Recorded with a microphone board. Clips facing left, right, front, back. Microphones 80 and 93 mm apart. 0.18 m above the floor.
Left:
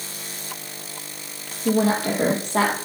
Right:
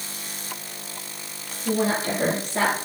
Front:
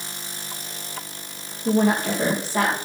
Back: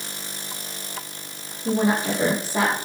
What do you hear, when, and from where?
1.6 s a woman speaking: 95° left, 6.5 m; by 2.8 s 100° left, 6.5 m